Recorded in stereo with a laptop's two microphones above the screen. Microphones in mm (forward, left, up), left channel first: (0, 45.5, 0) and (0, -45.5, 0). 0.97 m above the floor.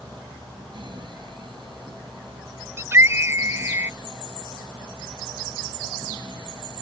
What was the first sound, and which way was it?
A fan, 65° right (ahead or behind).